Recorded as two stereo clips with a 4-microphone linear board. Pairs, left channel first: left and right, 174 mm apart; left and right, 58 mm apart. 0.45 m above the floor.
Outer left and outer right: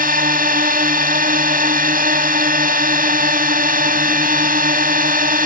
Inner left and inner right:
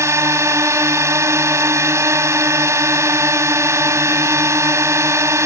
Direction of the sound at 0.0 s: 55° right (ahead or behind).